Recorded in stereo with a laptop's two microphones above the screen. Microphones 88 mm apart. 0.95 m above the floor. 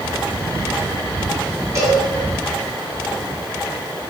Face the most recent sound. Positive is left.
turn(degrees=-35)  # may be behind; listen again after turning